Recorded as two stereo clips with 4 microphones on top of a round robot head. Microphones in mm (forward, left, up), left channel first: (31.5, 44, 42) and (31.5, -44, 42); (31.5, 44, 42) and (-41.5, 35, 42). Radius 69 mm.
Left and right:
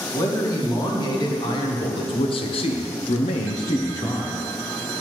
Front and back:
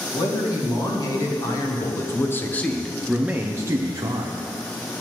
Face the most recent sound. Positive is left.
turn(degrees=160)